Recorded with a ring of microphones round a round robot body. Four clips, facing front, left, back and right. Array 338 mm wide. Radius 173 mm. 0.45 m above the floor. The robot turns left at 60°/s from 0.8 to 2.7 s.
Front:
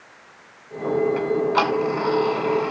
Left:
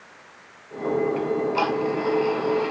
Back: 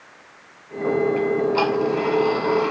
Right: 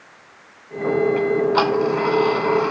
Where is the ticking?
25° right, 1.9 m; by 2.7 s 115° right, 1.9 m.